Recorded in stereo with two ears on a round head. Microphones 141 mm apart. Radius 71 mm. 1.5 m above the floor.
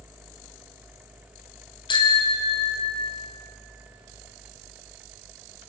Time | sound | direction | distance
1.9 | a bicycle bell | 30° left (ahead or behind) | 4.5 m